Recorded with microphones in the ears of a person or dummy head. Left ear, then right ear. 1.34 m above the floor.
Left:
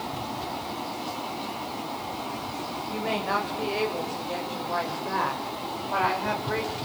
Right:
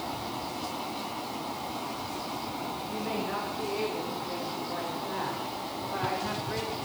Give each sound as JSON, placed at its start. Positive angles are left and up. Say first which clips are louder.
{"t": 2.9, "sound": "a woman speaking", "louder": "left 7 dB", "side_deg": 50, "distance_m": 7.5}